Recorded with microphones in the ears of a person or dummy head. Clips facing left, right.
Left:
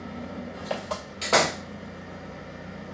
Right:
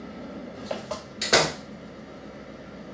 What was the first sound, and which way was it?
An engine running, 10° left (ahead or behind).